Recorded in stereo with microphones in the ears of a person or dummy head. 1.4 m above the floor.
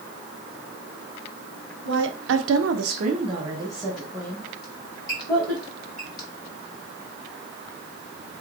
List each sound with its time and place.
1.9 s a woman speaking: 70° right (ahead or behind), 0.9 m; by 5.6 s 15° left (ahead or behind), 2 m
4.6 s a squeak: 25° left (ahead or behind), 1.5 m